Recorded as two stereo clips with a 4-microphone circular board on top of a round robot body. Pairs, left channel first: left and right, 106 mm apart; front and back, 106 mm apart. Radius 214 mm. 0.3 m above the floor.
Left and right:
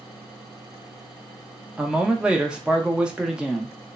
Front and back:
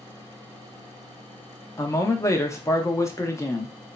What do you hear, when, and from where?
1.8 s a man speaking: 20° right, 0.9 m